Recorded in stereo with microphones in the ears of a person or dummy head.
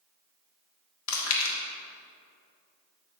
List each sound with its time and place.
1.1 s chewing: 80° left, 1.4 m